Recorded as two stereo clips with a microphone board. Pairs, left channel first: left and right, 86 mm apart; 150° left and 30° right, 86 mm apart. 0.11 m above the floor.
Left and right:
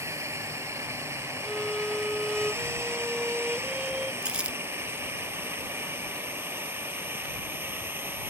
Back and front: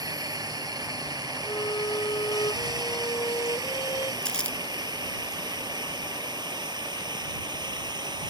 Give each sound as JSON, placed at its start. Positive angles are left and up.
{"t": 0.0, "sound": "a drone", "azimuth_deg": -45}
{"t": 1.4, "sound": "a violin", "azimuth_deg": -175}
{"t": 4.2, "sound": "crumpling", "azimuth_deg": -150}